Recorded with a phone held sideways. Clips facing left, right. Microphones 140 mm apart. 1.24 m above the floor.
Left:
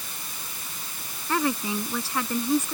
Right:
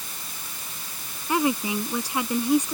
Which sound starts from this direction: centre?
A woman speaking, at 1.3 s.